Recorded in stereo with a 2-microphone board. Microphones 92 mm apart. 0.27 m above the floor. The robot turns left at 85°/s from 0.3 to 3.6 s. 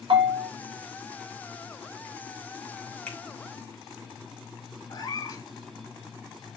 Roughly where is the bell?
Right.